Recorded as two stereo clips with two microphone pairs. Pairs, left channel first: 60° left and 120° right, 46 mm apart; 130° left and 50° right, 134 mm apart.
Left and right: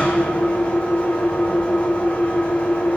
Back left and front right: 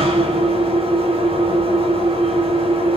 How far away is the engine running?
About 4.5 m.